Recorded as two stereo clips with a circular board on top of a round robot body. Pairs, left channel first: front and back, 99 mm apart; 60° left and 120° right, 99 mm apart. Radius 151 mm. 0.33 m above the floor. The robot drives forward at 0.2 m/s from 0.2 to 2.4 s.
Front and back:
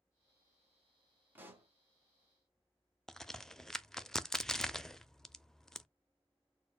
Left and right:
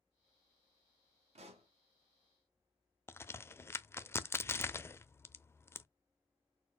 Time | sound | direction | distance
1.4 | a pop | 105° right | 0.8 m
3.1 | a crack | 80° left | 0.5 m